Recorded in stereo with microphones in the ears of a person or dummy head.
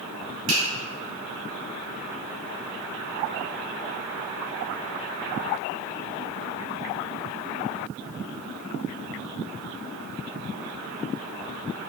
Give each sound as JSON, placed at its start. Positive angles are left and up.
{"t": 0.5, "sound": "a finger snap", "side_deg": -70, "distance_m": 1.5}